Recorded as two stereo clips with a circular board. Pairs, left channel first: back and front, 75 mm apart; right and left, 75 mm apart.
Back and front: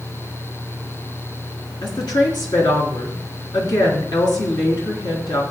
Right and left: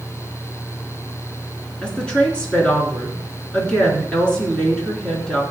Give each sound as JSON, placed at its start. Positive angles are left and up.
{"t": 1.8, "sound": "a woman speaking", "azimuth_deg": -165, "distance_m": 3.5}